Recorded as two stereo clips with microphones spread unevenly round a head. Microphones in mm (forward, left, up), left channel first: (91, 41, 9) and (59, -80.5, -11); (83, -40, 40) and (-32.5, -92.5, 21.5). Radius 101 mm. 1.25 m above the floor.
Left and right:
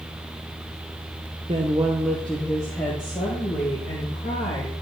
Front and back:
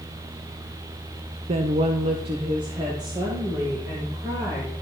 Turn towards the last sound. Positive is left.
turn(degrees=130)